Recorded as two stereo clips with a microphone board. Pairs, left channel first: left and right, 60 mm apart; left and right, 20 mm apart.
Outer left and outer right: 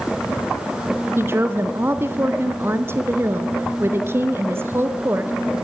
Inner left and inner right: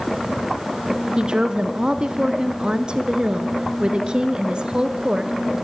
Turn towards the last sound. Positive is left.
turn(degrees=-45)  # may be behind; listen again after turning